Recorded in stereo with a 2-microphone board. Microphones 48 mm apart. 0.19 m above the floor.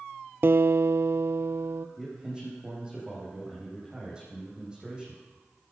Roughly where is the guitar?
Right.